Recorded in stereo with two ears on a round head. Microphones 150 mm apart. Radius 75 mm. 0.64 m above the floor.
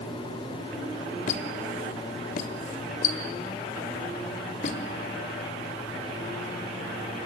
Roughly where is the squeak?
Left.